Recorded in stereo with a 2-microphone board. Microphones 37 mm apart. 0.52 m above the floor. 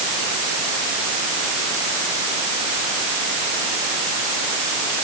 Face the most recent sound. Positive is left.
No sound to turn to.